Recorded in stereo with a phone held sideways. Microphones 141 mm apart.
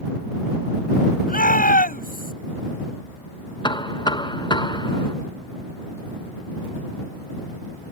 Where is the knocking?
30° left (ahead or behind).